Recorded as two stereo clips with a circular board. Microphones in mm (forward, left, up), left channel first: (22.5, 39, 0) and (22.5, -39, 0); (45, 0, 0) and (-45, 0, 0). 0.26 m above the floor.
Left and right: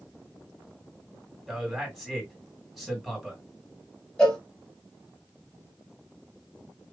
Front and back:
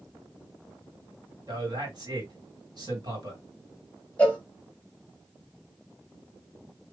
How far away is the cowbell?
About 1.2 m.